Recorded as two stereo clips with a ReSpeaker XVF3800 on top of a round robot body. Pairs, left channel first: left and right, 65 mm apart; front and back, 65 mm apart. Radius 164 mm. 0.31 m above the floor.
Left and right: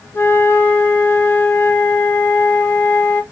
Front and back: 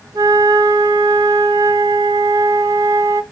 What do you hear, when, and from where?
0.1 s a flute: 150° left, 0.9 m